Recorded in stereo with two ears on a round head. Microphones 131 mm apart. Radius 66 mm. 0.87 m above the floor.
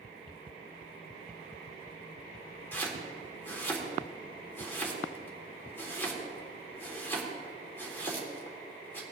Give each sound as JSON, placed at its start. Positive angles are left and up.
{"t": 2.7, "sound": "chopping", "side_deg": 15, "distance_m": 1.9}